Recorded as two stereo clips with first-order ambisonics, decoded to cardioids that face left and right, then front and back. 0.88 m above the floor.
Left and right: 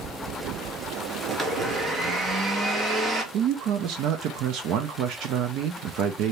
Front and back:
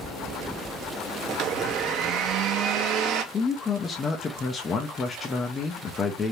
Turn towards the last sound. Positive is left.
turn(degrees=-65)